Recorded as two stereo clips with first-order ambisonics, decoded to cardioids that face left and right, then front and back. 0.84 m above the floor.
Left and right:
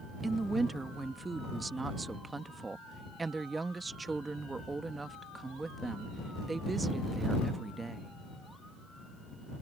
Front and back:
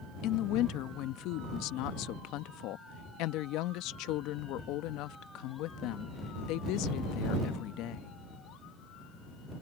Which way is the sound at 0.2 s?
15° right.